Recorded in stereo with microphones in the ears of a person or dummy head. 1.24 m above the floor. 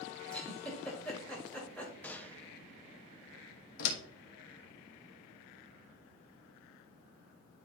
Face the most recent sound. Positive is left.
turn(degrees=80)